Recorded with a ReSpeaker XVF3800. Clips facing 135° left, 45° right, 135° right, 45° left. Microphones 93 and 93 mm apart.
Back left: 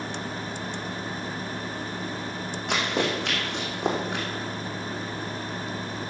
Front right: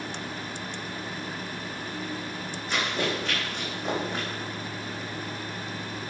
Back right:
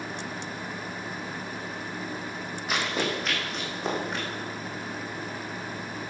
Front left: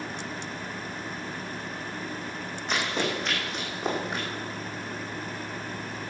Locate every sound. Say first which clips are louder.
2.7 s running footsteps: back left 2 dB, even; 140° left, 5 m; by 4.2 s 125° left, 5 m